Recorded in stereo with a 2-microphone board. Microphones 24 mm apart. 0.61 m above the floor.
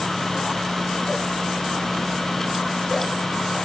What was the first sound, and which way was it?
Only background noise.